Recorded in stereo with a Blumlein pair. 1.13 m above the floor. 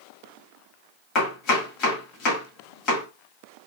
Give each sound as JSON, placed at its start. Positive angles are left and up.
{"t": 1.1, "sound": "chopping", "azimuth_deg": 30, "distance_m": 2.5}